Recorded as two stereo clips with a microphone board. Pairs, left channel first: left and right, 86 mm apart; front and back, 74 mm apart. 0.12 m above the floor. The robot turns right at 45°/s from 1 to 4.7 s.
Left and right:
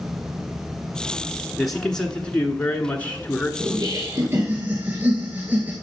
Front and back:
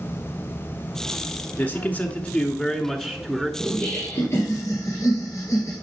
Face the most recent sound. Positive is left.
turn(degrees=-25)